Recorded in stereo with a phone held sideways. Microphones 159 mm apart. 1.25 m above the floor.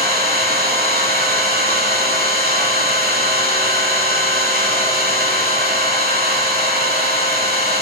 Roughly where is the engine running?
Right.